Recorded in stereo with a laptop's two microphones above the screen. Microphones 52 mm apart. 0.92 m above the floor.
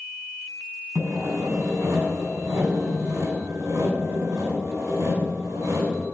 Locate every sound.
0.9 s sawing: 85° right, 6.5 m